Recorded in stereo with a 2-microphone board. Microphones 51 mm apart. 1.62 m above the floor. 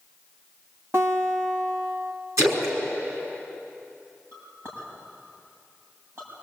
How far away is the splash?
About 5 m.